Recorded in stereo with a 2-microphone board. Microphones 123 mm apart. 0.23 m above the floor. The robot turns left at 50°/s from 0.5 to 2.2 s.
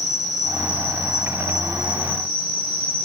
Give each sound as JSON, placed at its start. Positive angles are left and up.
{"t": 0.0, "sound": "an insect", "azimuth_deg": 30, "distance_m": 1.2}